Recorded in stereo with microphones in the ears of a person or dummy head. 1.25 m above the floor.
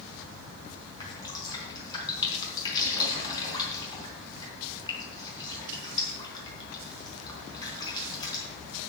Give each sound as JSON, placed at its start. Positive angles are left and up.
{"t": 1.0, "sound": "dripping", "side_deg": 20, "distance_m": 4.0}